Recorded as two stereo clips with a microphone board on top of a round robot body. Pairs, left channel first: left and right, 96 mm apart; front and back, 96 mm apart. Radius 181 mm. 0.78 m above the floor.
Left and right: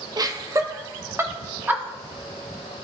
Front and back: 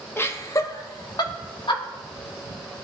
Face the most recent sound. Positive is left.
turn(degrees=-20)